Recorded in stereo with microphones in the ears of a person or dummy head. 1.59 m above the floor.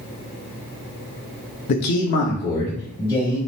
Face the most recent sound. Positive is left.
turn(degrees=45)  # may be behind; listen again after turning